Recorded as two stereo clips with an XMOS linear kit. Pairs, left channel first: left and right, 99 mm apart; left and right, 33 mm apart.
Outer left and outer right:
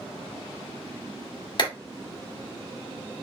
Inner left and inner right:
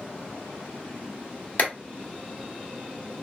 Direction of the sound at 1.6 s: 45° left (ahead or behind).